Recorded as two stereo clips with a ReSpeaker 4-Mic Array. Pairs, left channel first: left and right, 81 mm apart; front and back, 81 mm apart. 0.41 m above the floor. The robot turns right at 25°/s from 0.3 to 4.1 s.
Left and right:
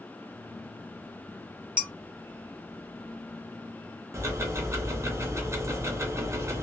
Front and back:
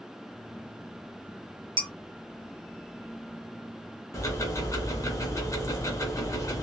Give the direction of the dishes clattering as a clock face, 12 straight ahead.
5 o'clock.